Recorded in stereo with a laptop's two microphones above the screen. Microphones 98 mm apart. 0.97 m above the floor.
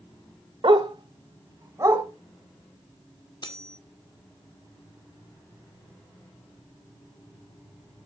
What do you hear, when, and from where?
0.6 s a dog barking: 55° right (ahead or behind), 1.3 m; by 2.0 s 30° right (ahead or behind), 2.5 m
3.4 s cutlery clinking: 50° left (ahead or behind), 1.5 m